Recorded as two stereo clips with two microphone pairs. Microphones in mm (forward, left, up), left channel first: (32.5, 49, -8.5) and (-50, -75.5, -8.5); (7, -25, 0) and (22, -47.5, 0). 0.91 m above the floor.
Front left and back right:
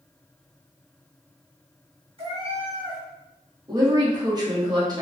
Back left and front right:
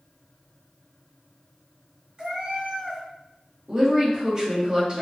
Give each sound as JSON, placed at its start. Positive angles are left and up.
{"t": 2.2, "sound": "a cat meowing", "azimuth_deg": -90, "distance_m": 0.9}
{"t": 3.7, "sound": "a woman speaking", "azimuth_deg": -90, "distance_m": 0.8}